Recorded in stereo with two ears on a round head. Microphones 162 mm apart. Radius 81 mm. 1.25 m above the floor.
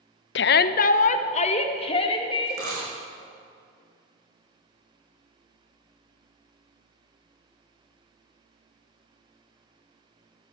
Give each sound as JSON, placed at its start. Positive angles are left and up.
{"t": 0.3, "sound": "a shout", "side_deg": 65, "distance_m": 0.5}
{"t": 2.5, "sound": "a dropped coin", "side_deg": -65, "distance_m": 7.5}